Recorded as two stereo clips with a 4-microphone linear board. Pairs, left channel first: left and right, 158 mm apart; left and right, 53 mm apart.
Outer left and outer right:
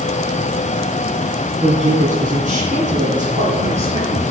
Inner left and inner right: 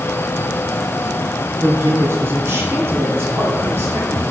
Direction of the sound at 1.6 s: 45° right (ahead or behind).